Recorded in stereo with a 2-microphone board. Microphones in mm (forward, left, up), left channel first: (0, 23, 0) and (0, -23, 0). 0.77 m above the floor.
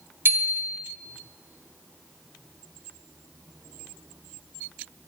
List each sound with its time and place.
0.2 s a bicycle bell: 55° right (ahead or behind), 2.5 m